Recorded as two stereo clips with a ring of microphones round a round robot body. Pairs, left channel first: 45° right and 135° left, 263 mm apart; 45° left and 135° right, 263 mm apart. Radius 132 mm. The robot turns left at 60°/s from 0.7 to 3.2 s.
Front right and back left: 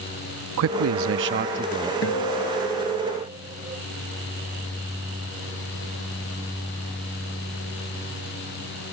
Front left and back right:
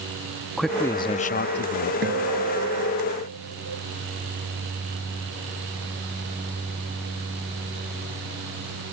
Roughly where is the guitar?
Right.